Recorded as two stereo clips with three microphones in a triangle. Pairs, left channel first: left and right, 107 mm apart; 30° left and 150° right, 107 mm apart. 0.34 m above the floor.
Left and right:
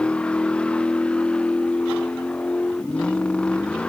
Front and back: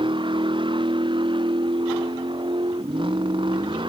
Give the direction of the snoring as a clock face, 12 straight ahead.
I don't hear snoring.